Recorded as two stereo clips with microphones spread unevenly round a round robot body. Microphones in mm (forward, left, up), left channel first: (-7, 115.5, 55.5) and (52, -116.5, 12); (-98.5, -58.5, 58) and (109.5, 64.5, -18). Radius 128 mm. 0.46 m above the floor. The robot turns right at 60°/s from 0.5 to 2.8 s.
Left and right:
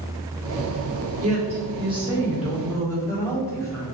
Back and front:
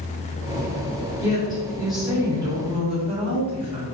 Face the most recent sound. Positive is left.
turn(degrees=20)